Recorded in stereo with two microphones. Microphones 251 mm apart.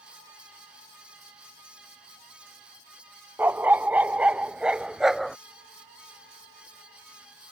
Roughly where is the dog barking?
Centre.